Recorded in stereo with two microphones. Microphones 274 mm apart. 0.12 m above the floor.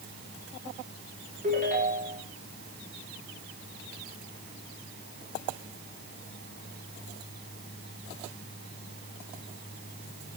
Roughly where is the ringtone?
Right.